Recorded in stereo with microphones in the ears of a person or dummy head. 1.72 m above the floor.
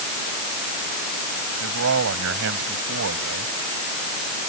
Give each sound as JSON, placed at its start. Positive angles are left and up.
{"t": 1.6, "sound": "a man speaking", "side_deg": -70}